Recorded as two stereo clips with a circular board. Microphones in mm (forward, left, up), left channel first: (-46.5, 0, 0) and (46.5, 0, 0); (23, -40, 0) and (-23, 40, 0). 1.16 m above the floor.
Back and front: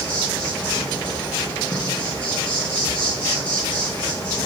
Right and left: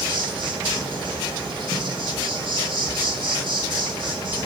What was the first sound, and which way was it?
An insect, 105° left.